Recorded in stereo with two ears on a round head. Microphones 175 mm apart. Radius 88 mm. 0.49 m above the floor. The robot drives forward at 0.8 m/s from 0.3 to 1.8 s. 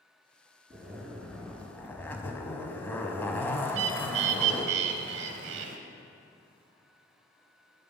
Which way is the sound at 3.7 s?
65° right (ahead or behind).